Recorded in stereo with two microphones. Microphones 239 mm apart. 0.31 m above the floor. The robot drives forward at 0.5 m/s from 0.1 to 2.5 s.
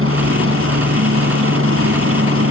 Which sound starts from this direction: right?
A helicopter, at 0.0 s.